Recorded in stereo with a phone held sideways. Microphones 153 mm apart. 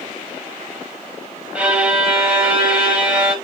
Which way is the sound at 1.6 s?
5° right (ahead or behind).